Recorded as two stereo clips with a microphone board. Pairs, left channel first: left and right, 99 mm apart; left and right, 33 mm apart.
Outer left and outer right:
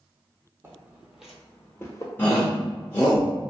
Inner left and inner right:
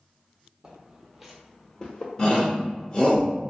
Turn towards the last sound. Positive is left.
turn(degrees=20)  # may be behind; listen again after turning